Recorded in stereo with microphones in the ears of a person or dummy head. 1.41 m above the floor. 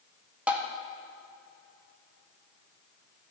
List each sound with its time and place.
0.5 s tapping: 20° right (ahead or behind), 0.6 m